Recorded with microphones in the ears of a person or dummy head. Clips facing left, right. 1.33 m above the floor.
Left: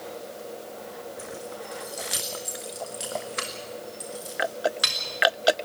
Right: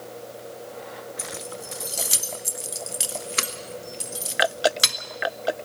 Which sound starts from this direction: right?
Keys jangling, at 1.2 s.